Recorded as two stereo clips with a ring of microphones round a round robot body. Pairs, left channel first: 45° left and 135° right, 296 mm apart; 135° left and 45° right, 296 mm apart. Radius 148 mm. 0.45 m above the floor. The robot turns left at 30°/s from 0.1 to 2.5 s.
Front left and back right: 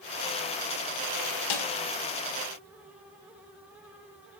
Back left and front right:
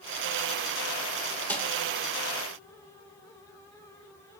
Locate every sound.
1.5 s a snare drum: 50° left, 2.0 m; by 1.7 s 45° left, 2.0 m